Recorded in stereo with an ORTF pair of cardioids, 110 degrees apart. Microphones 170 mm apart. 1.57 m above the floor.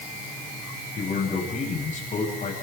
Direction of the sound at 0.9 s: 50° left.